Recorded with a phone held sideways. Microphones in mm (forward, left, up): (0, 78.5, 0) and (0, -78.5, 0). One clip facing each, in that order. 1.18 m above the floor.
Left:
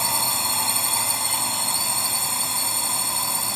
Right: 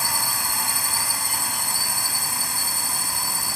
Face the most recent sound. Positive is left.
turn(degrees=25)  # may be behind; listen again after turning